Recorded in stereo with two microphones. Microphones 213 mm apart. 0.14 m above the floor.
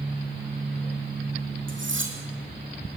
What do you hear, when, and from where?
1.7 s cutlery clinking: 70° right (ahead or behind), 5 m